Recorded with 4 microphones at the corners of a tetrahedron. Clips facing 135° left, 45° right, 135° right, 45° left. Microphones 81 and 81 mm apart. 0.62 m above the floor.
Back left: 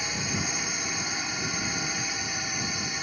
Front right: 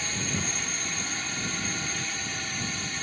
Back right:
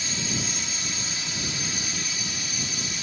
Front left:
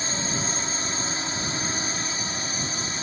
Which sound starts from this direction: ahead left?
A drone, at 0.0 s.